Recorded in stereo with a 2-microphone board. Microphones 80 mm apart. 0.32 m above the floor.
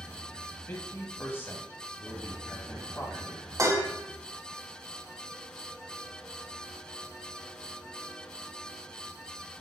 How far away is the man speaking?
About 2 m.